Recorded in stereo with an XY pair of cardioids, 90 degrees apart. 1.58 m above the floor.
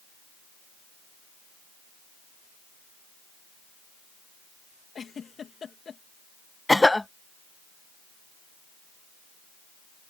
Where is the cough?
10° left.